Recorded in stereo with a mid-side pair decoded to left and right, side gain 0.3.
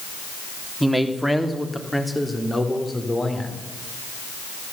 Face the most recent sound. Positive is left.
turn(degrees=30)